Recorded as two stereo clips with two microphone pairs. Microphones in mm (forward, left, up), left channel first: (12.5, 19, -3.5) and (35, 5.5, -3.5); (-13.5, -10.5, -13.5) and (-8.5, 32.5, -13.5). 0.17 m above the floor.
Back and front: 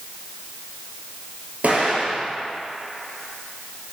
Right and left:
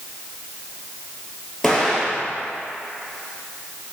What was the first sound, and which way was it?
An explosion, 10° right.